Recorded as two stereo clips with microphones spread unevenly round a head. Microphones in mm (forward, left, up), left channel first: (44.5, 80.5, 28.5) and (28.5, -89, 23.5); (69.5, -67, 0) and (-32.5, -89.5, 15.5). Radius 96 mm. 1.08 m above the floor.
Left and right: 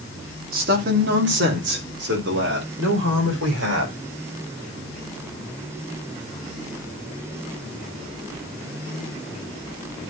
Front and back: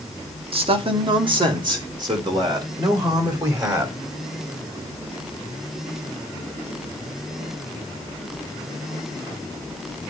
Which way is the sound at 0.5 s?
135° right.